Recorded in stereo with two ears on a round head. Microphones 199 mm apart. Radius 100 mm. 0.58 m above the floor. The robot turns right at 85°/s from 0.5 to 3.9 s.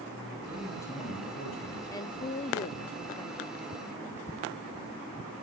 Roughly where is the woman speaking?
Ahead left.